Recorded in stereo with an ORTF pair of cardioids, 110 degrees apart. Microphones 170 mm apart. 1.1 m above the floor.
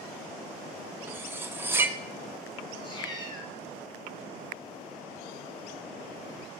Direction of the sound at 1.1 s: 15° right.